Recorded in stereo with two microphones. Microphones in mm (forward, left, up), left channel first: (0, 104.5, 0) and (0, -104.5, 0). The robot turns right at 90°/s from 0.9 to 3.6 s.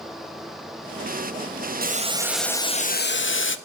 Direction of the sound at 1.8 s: 50° right.